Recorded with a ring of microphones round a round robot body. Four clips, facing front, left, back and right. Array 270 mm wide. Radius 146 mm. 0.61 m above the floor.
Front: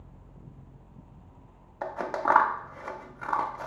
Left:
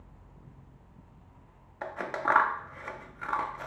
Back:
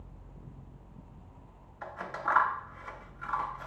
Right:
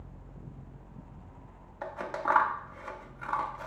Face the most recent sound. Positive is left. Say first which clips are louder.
# left 1 dB, front 7 dB
turn(degrees=20)